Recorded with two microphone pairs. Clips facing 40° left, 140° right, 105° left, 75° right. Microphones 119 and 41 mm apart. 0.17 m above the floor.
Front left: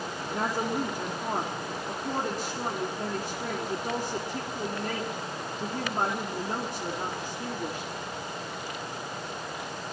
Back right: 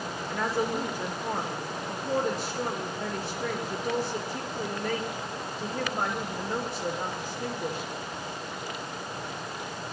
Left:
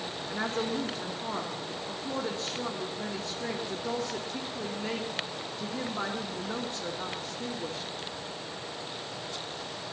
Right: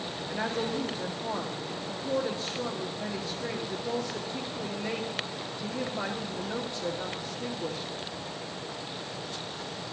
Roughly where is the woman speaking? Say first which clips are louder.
Back right 1 dB, even; ahead left.